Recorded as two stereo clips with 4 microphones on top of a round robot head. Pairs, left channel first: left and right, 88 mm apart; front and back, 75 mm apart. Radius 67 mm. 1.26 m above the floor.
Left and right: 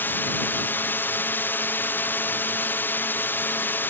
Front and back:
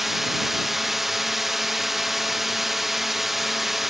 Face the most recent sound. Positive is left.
turn(degrees=95)